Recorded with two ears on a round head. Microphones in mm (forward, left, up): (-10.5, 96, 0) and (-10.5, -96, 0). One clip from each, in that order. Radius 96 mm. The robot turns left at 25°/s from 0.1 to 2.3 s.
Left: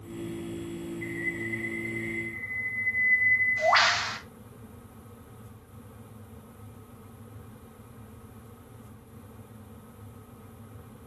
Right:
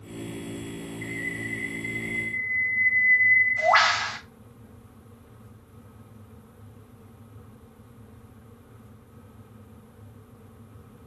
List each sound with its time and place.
1.0 s a bird: 155° right, 2.5 m; by 4.2 s 170° left, 2.5 m